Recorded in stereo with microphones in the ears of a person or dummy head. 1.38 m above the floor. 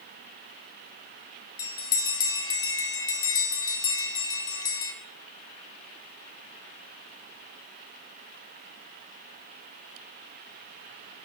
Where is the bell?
25° left (ahead or behind), 1.0 m.